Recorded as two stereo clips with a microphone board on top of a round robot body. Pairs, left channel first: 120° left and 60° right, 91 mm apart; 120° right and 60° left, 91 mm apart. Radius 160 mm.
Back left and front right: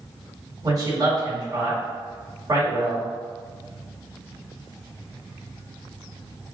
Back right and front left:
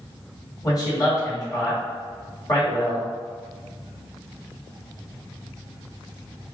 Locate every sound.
0.6 s a man speaking: 90° right, 2.0 m